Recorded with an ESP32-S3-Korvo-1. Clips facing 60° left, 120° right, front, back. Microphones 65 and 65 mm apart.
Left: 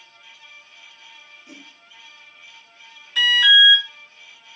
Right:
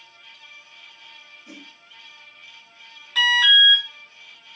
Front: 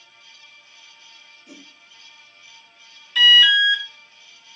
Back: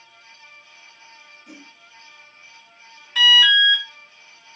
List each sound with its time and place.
1.5 s a whoosh: 150° right, 0.7 m
3.1 s an alarm: 135° right, 1.8 m